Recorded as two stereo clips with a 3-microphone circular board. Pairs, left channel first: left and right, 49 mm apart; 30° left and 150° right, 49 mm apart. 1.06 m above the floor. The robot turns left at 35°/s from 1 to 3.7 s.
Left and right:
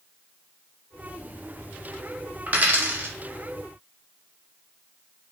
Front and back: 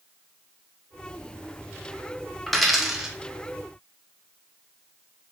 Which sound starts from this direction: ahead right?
A dropped coin, at 2.5 s.